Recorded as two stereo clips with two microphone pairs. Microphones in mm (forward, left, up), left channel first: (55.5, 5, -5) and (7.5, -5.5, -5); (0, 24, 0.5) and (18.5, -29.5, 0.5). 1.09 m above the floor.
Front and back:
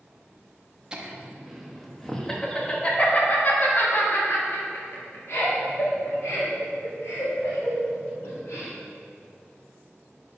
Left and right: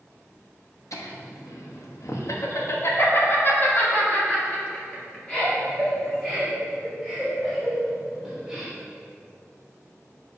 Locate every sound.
0.9 s laughter: 120° left, 1.5 m; by 8.7 s 25° left, 4 m